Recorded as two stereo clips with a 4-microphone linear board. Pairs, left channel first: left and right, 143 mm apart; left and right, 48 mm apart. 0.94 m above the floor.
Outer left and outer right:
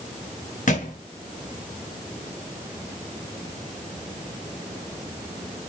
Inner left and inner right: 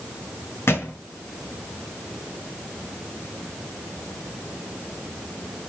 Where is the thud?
60° left (ahead or behind), 1.6 m.